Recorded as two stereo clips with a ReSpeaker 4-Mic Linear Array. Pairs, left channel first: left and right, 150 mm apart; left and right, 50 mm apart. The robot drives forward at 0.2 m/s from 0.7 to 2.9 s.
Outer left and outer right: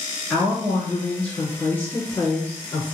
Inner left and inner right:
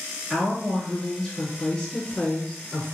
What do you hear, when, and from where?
0.3 s a woman speaking: 15° left (ahead or behind), 1.7 m; by 3.0 s 10° left (ahead or behind), 2.0 m